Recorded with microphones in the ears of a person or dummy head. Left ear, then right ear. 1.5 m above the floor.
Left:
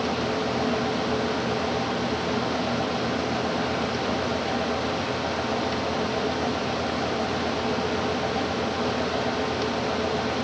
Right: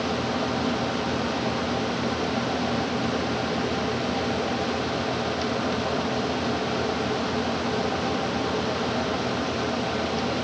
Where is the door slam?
No door slam in this recording.